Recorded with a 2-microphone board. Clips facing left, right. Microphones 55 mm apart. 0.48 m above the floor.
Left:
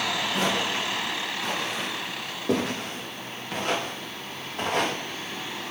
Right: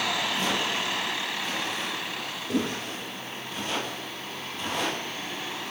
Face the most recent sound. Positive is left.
turn(degrees=65)  # may be behind; listen again after turning